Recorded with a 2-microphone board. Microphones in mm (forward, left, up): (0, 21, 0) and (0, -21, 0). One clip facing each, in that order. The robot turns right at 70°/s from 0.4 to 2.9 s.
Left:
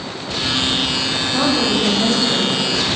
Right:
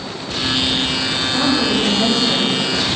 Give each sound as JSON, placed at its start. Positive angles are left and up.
{"t": 1.3, "sound": "a woman speaking", "azimuth_deg": 145, "distance_m": 5.5}